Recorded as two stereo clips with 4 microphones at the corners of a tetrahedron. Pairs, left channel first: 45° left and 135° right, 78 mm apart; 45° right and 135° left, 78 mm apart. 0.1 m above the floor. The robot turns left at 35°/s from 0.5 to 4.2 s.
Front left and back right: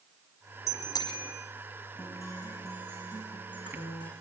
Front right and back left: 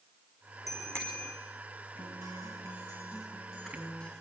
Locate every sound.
0.7 s a bicycle bell: 90° left, 4 m; by 1.3 s 70° left, 4 m
2.0 s a guitar: 105° left, 7.5 m; by 4.1 s 30° left, 7.5 m